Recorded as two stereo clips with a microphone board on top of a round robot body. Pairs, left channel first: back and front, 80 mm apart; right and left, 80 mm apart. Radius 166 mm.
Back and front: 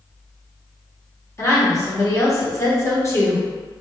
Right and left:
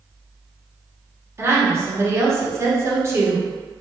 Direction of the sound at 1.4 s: 140° left.